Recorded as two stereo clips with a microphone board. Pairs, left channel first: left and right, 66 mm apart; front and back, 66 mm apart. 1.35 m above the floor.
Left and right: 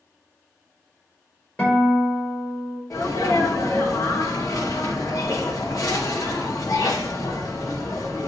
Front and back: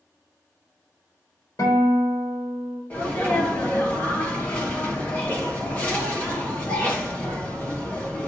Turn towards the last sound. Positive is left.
turn(degrees=65)